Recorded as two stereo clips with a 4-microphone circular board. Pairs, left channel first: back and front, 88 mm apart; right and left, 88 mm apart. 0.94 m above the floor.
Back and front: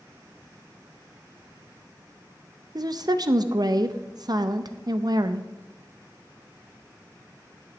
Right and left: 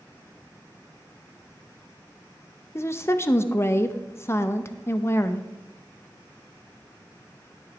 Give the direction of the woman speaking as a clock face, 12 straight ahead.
1 o'clock.